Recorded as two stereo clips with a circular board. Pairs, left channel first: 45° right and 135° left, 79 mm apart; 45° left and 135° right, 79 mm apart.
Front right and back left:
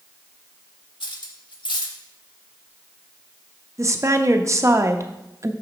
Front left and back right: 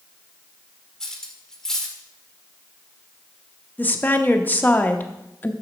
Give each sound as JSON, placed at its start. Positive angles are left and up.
{"t": 1.0, "sound": "cutlery clinking", "azimuth_deg": -40, "distance_m": 1.2}
{"t": 3.8, "sound": "a woman speaking", "azimuth_deg": 105, "distance_m": 0.7}